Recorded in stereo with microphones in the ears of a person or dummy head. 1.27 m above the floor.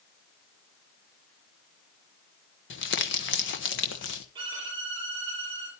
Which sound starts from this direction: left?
Crumpling, at 2.7 s.